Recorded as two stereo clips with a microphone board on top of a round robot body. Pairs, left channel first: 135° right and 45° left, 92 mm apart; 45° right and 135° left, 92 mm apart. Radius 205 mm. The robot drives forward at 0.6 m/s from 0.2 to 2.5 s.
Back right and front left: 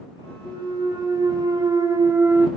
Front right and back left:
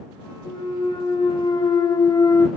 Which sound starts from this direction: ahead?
A clunk, at 0.5 s.